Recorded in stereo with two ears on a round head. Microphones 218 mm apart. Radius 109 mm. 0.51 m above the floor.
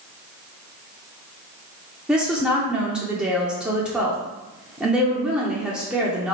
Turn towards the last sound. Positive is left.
turn(degrees=-5)  # may be behind; listen again after turning